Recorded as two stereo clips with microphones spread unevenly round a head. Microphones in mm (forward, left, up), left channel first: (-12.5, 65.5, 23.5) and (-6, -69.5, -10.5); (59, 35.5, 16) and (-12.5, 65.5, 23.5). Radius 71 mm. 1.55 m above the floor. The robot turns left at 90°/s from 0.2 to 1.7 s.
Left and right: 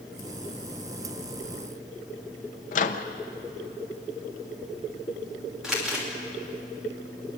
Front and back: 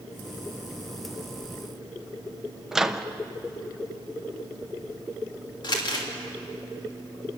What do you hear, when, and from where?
2.7 s a microwave: 75° left, 0.8 m
5.6 s crumpling: straight ahead, 3 m